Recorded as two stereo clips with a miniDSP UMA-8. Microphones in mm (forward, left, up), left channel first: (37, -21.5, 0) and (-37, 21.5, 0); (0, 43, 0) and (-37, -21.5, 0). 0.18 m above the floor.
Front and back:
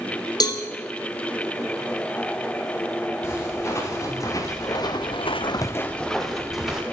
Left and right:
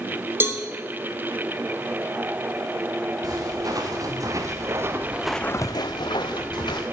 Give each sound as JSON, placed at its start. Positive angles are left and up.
{"t": 0.4, "sound": "a cowbell", "azimuth_deg": -65, "distance_m": 0.8}
{"t": 3.2, "sound": "footsteps", "azimuth_deg": -90, "distance_m": 3.0}